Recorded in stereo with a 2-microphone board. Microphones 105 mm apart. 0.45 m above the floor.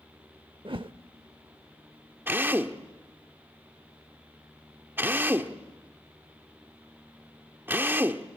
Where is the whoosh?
55° right (ahead or behind), 0.7 m.